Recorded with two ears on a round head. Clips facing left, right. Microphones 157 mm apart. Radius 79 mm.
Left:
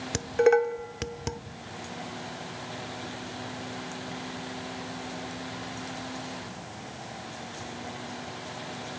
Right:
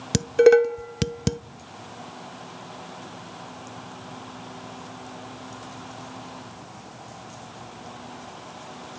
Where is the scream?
I don't hear a scream.